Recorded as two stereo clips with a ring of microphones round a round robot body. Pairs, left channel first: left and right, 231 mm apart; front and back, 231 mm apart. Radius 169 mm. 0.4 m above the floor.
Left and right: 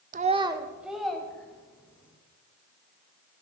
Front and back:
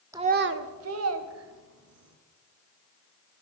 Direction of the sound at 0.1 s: 110° right.